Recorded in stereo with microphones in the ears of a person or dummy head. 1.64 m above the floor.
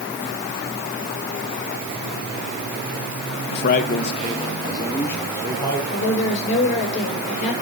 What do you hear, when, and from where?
3.5 s a man speaking: 60° left (ahead or behind), 1.2 m; by 5.8 s 5° left (ahead or behind), 4 m
5.9 s a woman speaking: 40° left (ahead or behind), 8.5 m